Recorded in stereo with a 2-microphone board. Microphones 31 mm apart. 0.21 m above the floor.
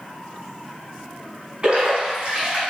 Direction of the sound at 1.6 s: 30° right (ahead or behind).